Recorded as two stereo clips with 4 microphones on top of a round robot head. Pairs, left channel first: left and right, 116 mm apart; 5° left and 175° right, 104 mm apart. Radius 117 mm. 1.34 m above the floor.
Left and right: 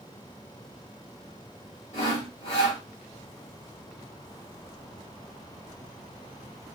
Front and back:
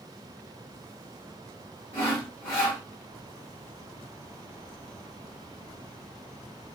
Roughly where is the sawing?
Left.